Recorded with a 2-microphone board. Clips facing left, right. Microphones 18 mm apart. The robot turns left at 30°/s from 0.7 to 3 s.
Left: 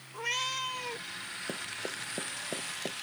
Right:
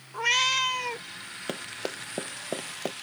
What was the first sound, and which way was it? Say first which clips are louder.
A cat meowing: right 9 dB; 40° right (ahead or behind).